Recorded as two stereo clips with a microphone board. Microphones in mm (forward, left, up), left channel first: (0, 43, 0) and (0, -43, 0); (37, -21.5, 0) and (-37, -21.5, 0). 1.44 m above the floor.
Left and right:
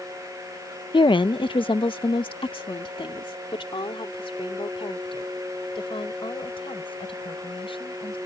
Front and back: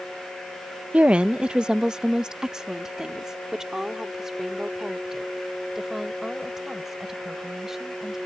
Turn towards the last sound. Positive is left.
turn(degrees=95)